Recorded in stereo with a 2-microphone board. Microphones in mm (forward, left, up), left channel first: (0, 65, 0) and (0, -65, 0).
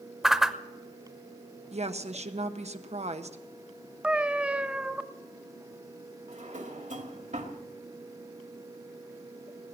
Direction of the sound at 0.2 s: 5° right (ahead or behind).